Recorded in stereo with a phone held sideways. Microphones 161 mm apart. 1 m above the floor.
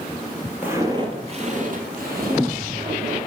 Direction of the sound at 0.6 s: 10° right (ahead or behind).